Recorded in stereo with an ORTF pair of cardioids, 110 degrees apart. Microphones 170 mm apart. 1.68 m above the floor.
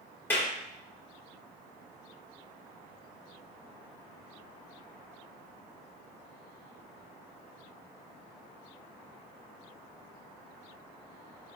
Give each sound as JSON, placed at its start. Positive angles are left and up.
{"t": 0.3, "sound": "a clap", "azimuth_deg": 10, "distance_m": 3.5}